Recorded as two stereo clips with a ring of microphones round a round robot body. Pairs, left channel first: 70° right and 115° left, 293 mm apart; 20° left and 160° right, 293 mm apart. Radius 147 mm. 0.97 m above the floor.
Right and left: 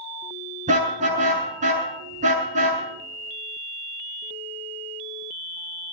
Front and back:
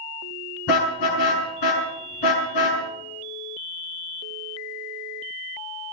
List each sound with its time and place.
0.7 s a car horn: 45° left, 7 m